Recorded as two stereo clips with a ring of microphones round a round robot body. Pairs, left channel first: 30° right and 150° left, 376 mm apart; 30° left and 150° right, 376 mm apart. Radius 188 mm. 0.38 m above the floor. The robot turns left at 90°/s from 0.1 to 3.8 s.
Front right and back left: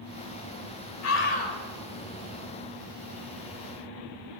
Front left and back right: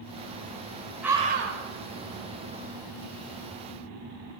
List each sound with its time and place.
1.0 s a scream: 65° right, 1.6 m; by 1.6 s 115° right, 1.6 m